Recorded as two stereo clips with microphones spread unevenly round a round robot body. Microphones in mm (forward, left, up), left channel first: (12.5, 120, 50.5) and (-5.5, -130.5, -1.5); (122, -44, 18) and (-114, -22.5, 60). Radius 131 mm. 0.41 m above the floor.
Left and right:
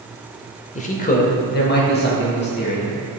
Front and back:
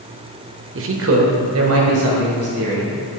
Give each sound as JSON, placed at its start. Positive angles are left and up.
{"t": 0.8, "sound": "a man speaking", "azimuth_deg": 155, "distance_m": 1.0}